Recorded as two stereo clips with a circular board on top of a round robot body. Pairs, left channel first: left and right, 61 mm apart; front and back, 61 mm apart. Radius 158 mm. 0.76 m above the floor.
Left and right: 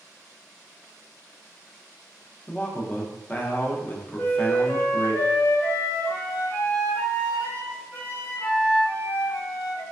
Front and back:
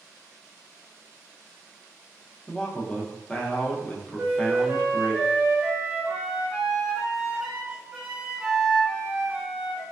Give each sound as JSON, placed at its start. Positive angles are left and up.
{"t": 2.5, "sound": "a man speaking", "azimuth_deg": 60, "distance_m": 0.6}
{"t": 4.2, "sound": "a flute", "azimuth_deg": 115, "distance_m": 1.0}